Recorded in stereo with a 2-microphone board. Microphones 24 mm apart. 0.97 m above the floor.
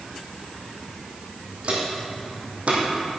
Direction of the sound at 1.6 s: 50° right (ahead or behind).